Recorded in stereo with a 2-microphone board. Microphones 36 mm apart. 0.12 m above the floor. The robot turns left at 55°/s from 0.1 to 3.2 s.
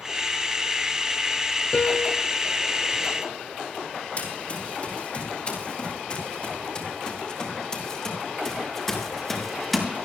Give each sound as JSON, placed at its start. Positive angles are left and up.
{"t": 1.7, "sound": "a piano", "side_deg": 40, "distance_m": 1.2}
{"t": 4.2, "sound": "running footsteps", "side_deg": 40, "distance_m": 8.5}